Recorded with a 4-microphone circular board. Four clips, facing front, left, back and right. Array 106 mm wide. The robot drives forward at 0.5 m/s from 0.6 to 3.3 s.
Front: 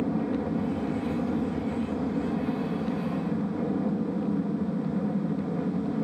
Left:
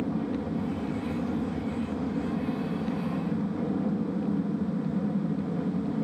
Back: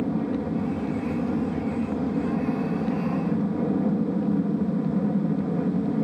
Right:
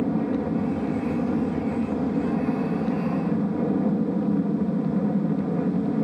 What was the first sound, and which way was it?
An aircraft, 90° right.